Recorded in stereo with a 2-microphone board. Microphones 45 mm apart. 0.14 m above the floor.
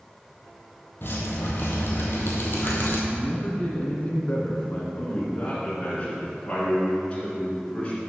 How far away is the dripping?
About 1.4 m.